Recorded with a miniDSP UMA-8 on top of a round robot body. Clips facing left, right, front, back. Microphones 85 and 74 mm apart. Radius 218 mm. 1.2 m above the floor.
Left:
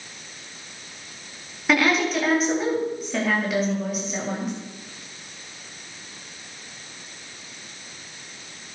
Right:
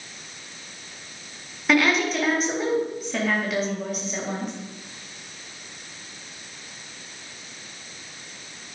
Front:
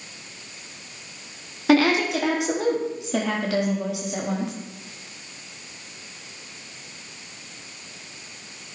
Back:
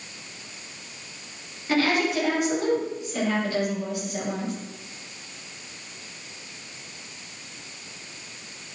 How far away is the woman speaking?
About 3.5 m.